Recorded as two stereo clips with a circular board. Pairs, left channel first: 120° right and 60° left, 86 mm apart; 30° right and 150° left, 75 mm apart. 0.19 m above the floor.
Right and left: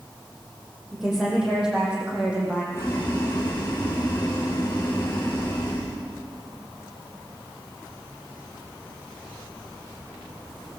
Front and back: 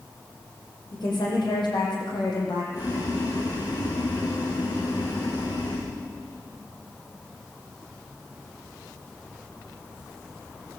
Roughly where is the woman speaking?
Ahead right.